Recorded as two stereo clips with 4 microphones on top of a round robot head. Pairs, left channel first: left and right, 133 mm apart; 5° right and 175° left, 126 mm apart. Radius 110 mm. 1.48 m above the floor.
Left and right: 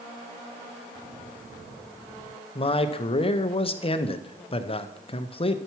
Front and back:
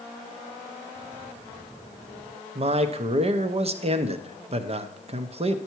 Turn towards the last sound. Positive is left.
turn(degrees=140)